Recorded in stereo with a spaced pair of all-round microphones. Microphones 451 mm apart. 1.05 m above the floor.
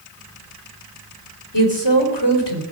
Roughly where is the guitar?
No guitar in this recording.